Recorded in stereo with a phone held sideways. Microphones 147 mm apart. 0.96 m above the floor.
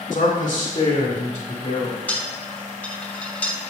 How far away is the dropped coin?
About 2.5 m.